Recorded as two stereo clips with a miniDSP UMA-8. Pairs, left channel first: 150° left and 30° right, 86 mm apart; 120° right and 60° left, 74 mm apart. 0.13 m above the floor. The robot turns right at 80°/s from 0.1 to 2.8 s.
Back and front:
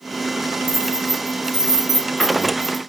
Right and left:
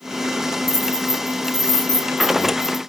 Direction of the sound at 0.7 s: 40° right.